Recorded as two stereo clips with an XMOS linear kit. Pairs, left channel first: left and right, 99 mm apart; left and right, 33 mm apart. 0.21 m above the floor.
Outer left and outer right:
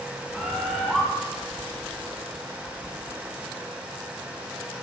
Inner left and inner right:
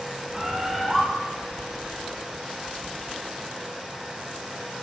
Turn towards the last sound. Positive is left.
turn(degrees=0)  # may be behind; listen again after turning